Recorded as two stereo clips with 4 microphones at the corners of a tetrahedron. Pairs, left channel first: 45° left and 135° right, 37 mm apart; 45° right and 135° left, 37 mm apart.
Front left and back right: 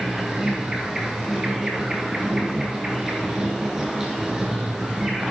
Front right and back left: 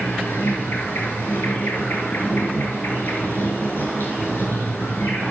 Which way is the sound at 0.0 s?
55° right.